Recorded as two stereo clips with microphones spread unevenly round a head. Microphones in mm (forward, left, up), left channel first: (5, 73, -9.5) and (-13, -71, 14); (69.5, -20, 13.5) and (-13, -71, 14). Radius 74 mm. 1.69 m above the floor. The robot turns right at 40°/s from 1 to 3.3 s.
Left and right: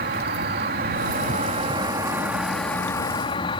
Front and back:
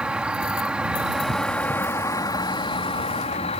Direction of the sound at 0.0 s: 70° right.